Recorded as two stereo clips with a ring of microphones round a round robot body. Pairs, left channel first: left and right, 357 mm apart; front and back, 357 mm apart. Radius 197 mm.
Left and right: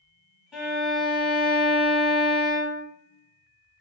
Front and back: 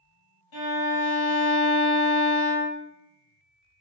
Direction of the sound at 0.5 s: Straight ahead.